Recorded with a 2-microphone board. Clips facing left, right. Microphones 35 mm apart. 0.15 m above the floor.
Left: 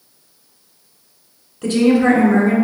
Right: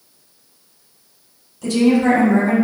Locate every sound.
1.6 s a woman speaking: 35° left (ahead or behind), 1.8 m